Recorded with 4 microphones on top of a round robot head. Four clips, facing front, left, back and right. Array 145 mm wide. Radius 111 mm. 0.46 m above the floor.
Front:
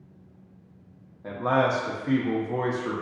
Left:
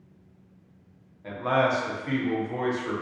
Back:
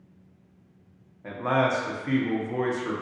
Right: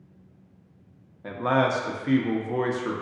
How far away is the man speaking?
About 0.8 m.